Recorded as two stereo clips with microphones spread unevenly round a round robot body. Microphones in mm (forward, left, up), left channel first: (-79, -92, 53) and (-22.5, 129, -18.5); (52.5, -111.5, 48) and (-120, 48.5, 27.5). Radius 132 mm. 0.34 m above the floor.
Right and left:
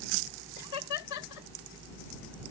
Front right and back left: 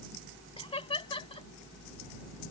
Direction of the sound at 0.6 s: 110° right.